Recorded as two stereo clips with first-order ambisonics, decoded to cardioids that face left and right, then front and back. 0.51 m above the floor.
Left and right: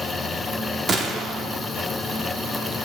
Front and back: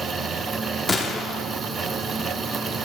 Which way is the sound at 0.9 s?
60° right.